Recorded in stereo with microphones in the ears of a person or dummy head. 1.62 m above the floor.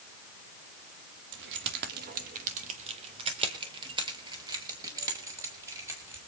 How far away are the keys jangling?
About 2 m.